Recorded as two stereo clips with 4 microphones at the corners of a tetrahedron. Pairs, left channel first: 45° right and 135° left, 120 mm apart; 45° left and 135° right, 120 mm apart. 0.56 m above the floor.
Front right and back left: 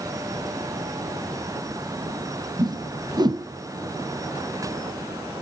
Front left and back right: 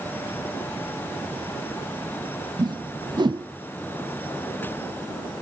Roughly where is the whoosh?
Behind.